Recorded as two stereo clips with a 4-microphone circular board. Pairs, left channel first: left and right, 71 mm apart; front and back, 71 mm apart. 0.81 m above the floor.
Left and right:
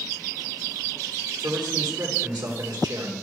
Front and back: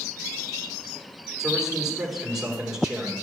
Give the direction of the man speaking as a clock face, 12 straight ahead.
3 o'clock.